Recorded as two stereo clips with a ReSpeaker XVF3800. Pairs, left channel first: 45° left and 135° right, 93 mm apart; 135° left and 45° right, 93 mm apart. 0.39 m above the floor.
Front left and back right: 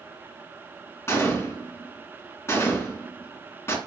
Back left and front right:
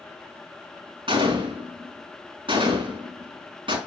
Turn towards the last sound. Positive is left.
turn(degrees=-15)